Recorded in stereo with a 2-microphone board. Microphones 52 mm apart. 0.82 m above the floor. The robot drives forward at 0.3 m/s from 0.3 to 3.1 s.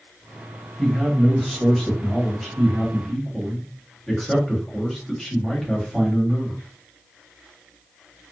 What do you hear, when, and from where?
0.8 s a man speaking: 5° left (ahead or behind), 0.9 m; by 6.6 s centre (ahead or behind), 1.5 m